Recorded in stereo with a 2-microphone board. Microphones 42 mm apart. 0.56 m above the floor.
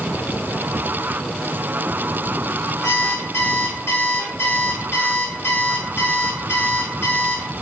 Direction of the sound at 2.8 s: 80° left.